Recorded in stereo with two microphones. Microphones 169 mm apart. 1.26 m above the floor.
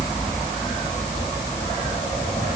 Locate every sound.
Only background noise.